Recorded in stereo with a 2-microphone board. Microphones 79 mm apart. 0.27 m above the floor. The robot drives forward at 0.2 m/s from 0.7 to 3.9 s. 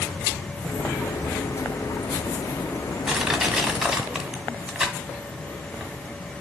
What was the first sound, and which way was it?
Crushing, 10° right (ahead or behind).